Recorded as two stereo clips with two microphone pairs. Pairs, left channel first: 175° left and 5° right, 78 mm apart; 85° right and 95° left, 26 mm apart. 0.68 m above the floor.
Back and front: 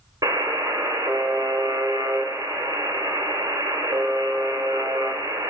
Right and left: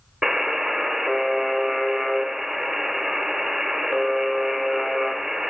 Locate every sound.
0.2 s a buzzer: 25° left, 1.5 m